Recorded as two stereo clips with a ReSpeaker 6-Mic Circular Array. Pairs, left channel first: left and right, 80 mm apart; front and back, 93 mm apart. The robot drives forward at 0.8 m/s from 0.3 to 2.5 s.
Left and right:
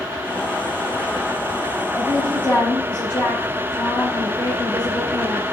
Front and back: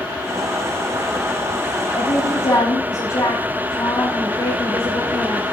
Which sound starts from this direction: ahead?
A woman speaking, at 1.9 s.